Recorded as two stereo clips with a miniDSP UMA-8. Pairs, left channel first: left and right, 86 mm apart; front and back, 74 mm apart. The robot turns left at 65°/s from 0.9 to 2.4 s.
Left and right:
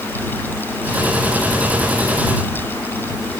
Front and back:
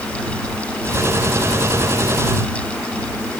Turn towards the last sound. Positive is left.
No sound to turn to.